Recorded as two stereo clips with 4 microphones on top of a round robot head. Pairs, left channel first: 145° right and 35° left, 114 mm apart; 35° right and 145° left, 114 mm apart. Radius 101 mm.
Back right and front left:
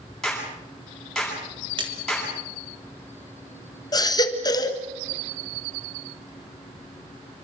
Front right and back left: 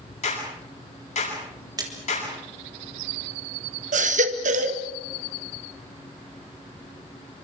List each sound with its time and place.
0.2 s a clap: 60° right, 9.5 m
1.8 s a splash: 85° left, 4 m
3.9 s a baby crying: 155° left, 1.7 m